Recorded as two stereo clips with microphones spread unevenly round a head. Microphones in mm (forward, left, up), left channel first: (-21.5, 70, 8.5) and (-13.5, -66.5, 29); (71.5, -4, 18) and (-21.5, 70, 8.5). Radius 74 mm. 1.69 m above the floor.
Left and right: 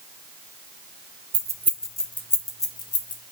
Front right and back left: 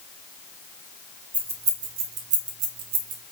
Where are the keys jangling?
130° right, 0.9 m; by 3.2 s 150° left, 1.6 m.